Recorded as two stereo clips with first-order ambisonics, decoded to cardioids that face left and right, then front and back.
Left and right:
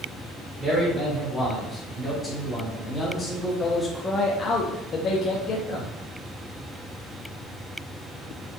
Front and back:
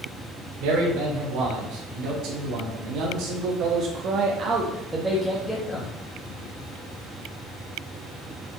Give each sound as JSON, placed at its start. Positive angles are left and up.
{"t": 0.6, "sound": "a man speaking", "azimuth_deg": -170, "distance_m": 2.5}